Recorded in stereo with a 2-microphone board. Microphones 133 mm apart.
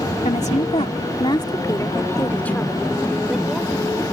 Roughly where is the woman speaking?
Left.